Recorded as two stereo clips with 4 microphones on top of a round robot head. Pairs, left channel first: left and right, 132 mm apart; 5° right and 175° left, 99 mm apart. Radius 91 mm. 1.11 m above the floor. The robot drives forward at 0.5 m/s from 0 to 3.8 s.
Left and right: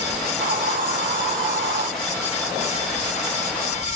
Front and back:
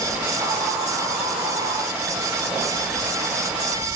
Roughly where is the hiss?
Right.